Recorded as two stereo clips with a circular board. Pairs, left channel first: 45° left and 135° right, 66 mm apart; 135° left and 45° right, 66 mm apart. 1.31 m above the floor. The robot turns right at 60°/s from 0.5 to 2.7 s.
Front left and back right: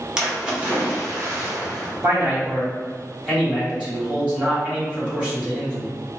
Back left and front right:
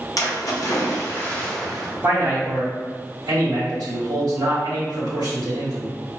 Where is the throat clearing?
No throat clearing in this recording.